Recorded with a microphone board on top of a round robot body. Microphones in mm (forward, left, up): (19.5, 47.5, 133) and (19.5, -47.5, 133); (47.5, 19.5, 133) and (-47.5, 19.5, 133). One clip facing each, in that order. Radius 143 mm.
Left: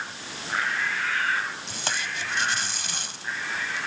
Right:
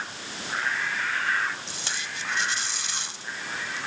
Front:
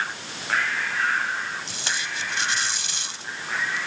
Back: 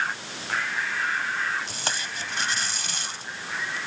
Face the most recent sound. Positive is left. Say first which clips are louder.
# left 4 dB, front 1 dB
turn(degrees=130)